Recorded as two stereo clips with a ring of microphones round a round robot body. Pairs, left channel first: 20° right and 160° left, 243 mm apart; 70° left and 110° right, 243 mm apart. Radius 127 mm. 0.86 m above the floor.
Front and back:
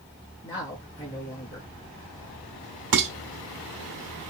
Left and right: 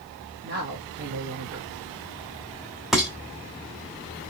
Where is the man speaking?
95° right, 1.2 m.